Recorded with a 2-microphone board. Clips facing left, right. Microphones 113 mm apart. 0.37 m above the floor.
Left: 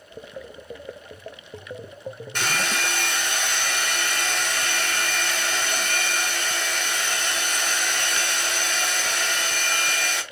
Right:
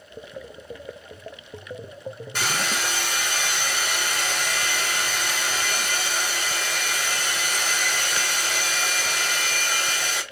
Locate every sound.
2.4 s a hair dryer: 10° right (ahead or behind), 2.0 m